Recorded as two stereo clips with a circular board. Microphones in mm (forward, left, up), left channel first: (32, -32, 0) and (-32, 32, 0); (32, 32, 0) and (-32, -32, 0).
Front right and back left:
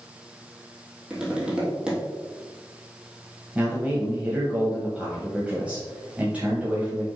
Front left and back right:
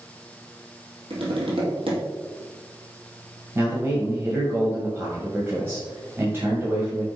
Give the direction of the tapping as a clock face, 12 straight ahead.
5 o'clock.